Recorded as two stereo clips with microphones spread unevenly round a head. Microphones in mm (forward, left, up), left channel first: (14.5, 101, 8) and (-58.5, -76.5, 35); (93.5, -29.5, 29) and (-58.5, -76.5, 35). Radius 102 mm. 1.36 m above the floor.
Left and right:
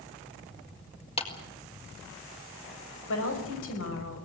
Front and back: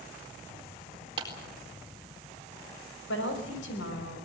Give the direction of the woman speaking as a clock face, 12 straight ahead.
11 o'clock.